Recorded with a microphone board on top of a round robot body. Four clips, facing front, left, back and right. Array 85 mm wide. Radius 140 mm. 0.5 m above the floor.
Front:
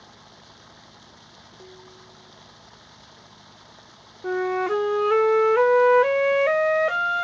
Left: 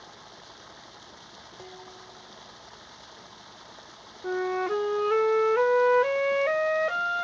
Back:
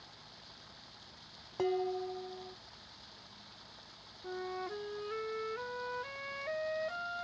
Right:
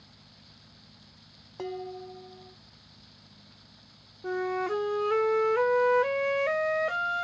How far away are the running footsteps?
No running footsteps in this recording.